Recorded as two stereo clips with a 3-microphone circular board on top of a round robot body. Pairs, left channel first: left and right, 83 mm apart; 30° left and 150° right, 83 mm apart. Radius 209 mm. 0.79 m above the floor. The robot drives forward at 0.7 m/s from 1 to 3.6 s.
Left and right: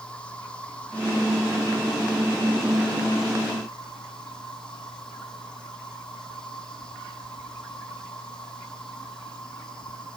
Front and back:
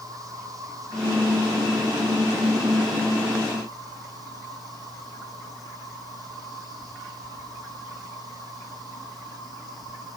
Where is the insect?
165° left, 4 m; by 10.2 s 170° left, 6 m.